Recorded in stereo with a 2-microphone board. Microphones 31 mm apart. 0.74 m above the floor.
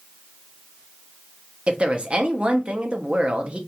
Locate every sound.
1.7 s a woman speaking: 35° right (ahead or behind), 0.6 m